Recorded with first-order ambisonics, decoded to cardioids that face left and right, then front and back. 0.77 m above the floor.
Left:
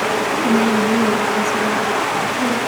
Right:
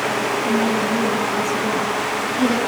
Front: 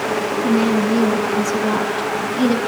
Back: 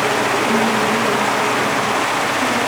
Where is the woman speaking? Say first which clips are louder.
Left 3 dB, back 2 dB; 45° left, 1.6 m; by 2.6 s 15° right, 1.4 m.